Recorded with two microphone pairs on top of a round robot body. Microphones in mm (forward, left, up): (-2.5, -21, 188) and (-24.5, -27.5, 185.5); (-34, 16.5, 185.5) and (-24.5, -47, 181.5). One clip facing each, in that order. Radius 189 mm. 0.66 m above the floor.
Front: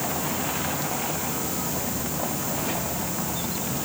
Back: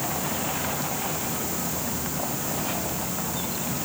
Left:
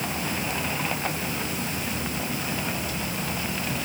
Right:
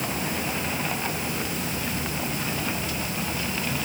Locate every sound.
Only background noise.